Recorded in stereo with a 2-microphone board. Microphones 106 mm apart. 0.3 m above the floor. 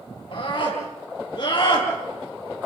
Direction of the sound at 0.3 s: 45° left (ahead or behind).